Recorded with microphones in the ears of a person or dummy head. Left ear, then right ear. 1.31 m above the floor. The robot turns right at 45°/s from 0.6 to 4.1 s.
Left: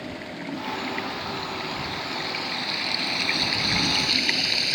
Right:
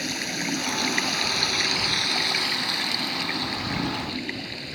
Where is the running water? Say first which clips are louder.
Right 7 dB; 105° right; by 4.7 s 55° left.